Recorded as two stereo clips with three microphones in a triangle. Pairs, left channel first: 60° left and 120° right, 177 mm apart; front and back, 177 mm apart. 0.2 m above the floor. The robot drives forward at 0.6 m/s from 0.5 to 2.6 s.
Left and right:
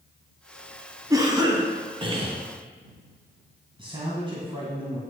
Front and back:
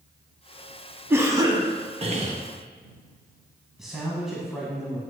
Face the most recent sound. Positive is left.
turn(degrees=-95)